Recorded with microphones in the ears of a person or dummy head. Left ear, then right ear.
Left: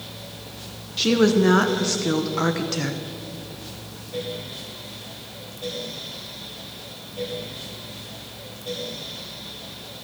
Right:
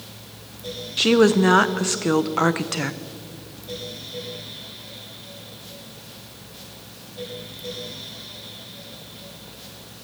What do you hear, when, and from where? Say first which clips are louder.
1.0 s a woman speaking: right 2 dB; 25° right (ahead or behind), 0.7 m